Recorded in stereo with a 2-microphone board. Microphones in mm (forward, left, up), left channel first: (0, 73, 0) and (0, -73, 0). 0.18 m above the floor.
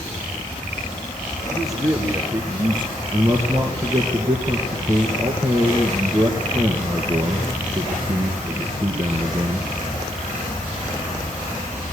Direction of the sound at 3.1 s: 20° right (ahead or behind).